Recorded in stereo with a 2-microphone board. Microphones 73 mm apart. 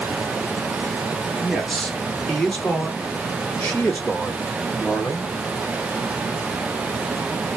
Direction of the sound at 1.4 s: Centre (ahead or behind).